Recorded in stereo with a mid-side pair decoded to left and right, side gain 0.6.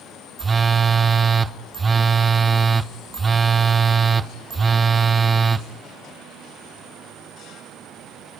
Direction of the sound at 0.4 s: 25° right.